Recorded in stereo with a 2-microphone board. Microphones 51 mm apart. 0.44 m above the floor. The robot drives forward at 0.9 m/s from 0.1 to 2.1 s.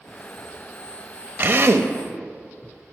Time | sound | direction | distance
1.4 | a drill | 40° right (ahead or behind) | 0.8 m